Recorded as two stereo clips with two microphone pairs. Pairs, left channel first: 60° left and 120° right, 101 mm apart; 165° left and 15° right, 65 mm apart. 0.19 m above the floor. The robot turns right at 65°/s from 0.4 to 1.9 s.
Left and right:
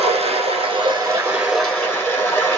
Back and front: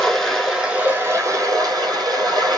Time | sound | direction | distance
0.0 | running water | 105° right | 1.7 m